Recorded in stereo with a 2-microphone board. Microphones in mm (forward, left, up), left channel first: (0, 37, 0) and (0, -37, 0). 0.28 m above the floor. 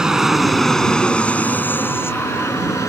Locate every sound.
0.0 s an aircraft: 10° right (ahead or behind); by 2.9 s 45° left (ahead or behind)